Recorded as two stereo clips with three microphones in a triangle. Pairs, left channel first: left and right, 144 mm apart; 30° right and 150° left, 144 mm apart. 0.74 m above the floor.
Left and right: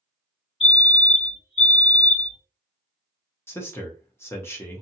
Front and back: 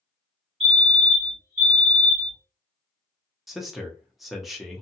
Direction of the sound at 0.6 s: 130° left.